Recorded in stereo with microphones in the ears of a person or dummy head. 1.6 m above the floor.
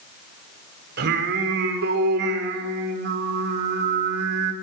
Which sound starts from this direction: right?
Singing, at 1.0 s.